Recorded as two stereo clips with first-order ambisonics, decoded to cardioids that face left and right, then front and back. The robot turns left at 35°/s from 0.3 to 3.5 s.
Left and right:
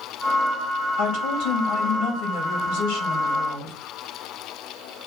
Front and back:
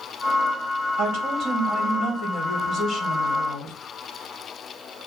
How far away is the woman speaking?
About 2.5 m.